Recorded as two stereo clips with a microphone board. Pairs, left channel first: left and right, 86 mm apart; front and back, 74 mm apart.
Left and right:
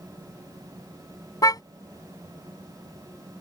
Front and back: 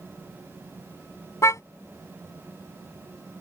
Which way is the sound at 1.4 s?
45° left.